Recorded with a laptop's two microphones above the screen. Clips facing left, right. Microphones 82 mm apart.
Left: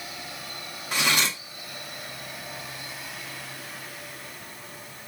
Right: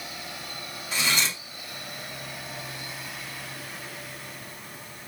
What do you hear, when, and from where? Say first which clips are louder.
0.9 s cutlery clinking: left 2 dB; 60° left (ahead or behind), 0.5 m